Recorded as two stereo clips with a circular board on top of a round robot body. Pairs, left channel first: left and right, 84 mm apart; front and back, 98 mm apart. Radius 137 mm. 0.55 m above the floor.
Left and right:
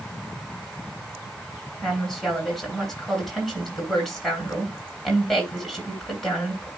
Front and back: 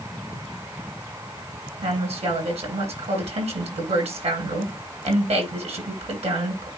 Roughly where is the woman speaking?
Behind.